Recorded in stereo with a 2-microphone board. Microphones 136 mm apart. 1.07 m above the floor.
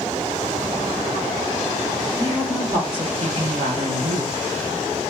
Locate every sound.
2.2 s a woman speaking: 20° right (ahead or behind), 1.5 m; by 4.4 s 60° right (ahead or behind), 1.5 m